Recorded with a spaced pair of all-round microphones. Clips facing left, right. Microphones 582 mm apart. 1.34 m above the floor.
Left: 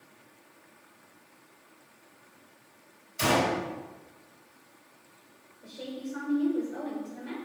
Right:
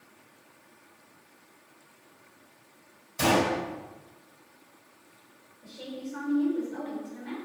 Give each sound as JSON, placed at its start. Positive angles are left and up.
{"t": 3.2, "sound": "a gunshot", "side_deg": -70, "distance_m": 4.5}
{"t": 5.6, "sound": "a woman speaking", "side_deg": -25, "distance_m": 4.0}